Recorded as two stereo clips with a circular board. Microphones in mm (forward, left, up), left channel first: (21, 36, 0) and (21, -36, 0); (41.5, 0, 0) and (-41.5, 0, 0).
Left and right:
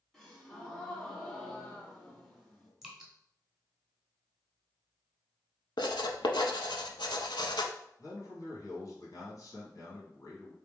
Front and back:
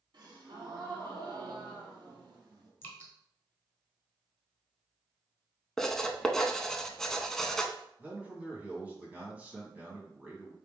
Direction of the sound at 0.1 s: 165° left.